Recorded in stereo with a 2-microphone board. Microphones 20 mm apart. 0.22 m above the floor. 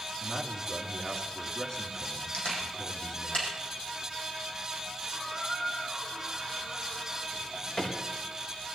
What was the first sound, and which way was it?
A man speaking, 45° left (ahead or behind).